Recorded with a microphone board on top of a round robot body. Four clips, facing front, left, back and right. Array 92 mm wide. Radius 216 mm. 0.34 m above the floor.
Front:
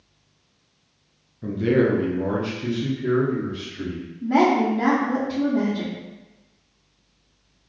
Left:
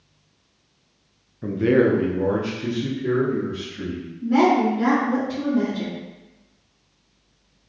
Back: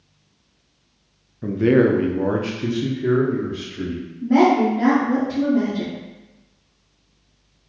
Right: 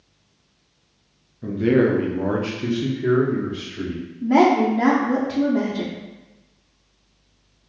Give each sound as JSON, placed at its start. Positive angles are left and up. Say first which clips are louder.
{"t": 1.4, "sound": "a man speaking", "louder": "even, back 4 dB", "azimuth_deg": 135, "distance_m": 0.9}
{"t": 4.2, "sound": "a woman speaking", "louder": "right 2 dB, back 3 dB", "azimuth_deg": -85, "distance_m": 1.3}